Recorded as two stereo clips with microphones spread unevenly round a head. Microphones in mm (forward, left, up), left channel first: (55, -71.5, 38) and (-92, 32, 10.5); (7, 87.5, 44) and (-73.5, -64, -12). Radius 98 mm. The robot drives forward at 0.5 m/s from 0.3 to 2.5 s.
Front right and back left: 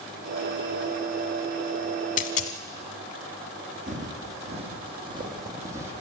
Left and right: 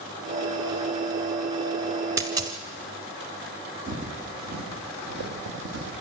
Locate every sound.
2.2 s a dropped coin: 30° right, 1.4 m; by 2.6 s 35° right, 1.3 m
3.9 s footsteps: 165° right, 3.5 m; by 5.9 s 135° right, 3 m